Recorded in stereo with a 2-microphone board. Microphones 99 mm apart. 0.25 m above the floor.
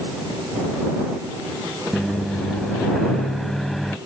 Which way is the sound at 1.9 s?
5° left (ahead or behind).